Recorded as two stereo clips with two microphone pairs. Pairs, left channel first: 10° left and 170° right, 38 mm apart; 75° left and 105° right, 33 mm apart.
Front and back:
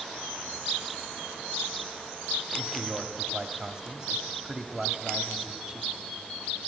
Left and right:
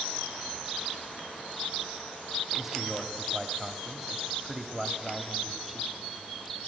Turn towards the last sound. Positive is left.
turn(degrees=-170)